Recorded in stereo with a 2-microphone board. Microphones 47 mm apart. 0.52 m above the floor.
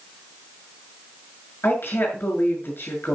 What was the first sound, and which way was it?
A woman speaking, 45° left (ahead or behind).